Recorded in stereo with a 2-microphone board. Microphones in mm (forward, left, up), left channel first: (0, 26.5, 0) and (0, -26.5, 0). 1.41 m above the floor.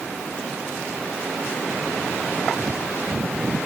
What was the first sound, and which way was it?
Only background noise.